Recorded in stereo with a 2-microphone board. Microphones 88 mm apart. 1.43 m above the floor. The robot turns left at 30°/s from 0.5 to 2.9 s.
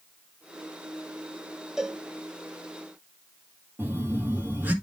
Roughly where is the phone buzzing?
Centre.